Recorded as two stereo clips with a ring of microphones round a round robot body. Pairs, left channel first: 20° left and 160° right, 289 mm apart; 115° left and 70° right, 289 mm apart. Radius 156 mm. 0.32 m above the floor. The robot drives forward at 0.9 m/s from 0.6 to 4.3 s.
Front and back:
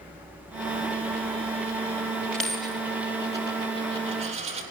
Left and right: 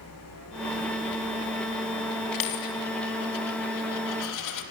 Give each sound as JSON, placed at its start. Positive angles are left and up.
{"t": 2.3, "sound": "a dropped coin", "azimuth_deg": 110, "distance_m": 3.5}